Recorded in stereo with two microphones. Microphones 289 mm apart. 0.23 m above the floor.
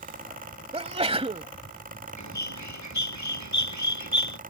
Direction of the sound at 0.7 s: 20° right (ahead or behind).